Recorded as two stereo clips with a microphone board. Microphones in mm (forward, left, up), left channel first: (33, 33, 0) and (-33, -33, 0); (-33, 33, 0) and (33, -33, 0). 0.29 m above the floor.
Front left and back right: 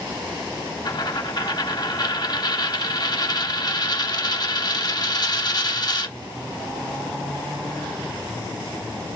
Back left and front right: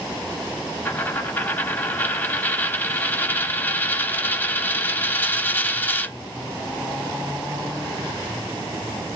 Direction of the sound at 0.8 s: 70° left.